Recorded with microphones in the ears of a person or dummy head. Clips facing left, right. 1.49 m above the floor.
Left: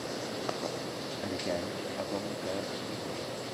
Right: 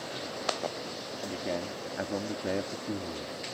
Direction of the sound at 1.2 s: Centre (ahead or behind).